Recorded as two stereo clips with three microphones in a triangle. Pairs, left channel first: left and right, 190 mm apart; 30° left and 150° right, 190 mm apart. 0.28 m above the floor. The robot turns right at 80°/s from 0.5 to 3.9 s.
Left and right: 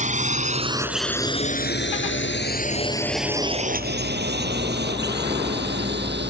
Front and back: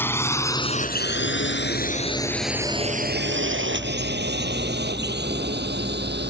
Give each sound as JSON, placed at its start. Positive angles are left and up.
{"t": 0.0, "sound": "a drone", "azimuth_deg": -45}